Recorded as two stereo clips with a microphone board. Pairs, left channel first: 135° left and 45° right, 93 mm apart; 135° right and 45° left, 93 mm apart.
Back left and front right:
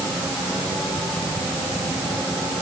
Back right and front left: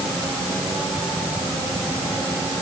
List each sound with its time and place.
Only background noise.